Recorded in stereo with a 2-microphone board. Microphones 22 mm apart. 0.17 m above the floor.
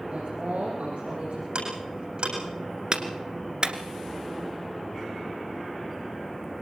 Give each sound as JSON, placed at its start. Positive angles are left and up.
{"t": 0.1, "sound": "a woman speaking", "side_deg": -80, "distance_m": 7.0}
{"t": 1.6, "sound": "ticking", "side_deg": -50, "distance_m": 8.0}
{"t": 2.9, "sound": "a clap", "side_deg": -40, "distance_m": 1.6}